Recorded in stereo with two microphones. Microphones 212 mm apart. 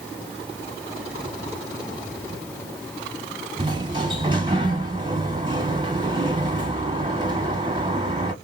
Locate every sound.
3.6 s a sliding door: 20° right (ahead or behind), 1.0 m